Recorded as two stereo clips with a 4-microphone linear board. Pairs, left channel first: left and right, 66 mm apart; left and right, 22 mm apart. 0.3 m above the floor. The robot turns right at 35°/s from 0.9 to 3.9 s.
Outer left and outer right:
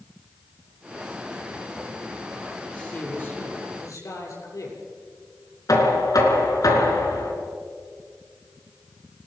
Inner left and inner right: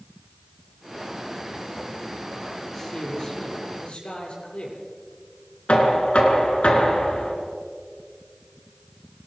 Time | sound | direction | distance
2.7 | a man speaking | 15° left | 7 m
5.7 | knocking | 65° left (ahead or behind) | 4 m